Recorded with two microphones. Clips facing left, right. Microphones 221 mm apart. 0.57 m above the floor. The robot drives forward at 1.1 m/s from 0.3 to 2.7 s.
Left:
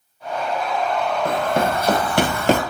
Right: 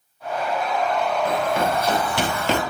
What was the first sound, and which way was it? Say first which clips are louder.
Running footsteps: left 1 dB; 45° left (ahead or behind).